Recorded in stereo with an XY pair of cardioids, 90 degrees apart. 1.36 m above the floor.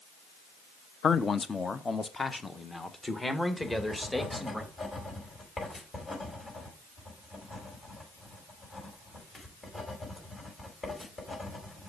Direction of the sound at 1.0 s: 55° left.